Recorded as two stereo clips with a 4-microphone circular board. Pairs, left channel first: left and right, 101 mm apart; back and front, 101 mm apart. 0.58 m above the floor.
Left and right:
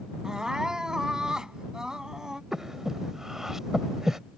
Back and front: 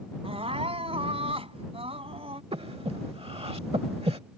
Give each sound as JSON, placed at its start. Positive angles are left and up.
{"t": 0.2, "sound": "crying", "azimuth_deg": -5}
{"t": 2.5, "sound": "breathing", "azimuth_deg": -5}